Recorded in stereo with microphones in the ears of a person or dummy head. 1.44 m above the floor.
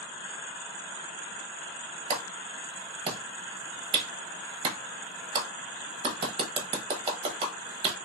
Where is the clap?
30° right (ahead or behind), 0.9 m.